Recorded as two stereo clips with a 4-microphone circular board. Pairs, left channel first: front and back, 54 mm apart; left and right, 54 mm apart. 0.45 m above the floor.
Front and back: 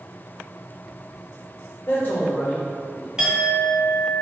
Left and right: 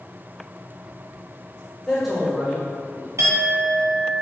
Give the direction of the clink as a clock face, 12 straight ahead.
3 o'clock.